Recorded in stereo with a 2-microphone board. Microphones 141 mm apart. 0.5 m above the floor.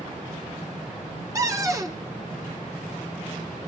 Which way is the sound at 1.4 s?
25° right (ahead or behind).